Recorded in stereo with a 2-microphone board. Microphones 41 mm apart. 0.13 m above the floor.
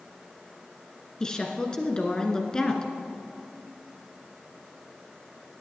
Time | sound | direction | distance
1.2 | a woman speaking | 20° left (ahead or behind) | 1.6 m